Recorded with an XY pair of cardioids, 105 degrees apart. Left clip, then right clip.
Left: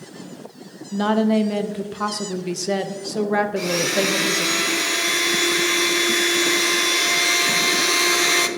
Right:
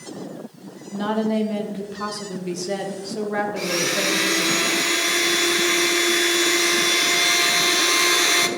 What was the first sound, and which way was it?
A woman speaking, 35° left.